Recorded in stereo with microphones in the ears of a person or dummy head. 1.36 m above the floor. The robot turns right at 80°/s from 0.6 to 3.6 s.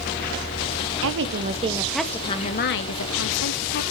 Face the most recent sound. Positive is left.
turn(degrees=130)